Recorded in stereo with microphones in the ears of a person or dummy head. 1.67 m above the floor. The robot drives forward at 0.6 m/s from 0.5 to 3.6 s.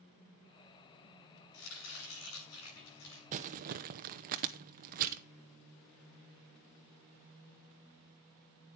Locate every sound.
1.5 s chopping: 80° left, 7 m; by 3.2 s 75° left (ahead or behind), 7 m
3.3 s crumpling: 45° right (ahead or behind), 0.9 m; by 5.2 s 50° right (ahead or behind), 0.9 m